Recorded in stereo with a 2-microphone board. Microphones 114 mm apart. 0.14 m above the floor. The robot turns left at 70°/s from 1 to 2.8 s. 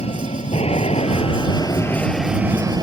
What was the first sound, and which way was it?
An aircraft, 85° left.